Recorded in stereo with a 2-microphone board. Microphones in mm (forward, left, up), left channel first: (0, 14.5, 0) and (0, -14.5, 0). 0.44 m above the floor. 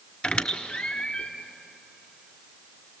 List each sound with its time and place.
0.2 s a squeak: 40° left (ahead or behind), 1.2 m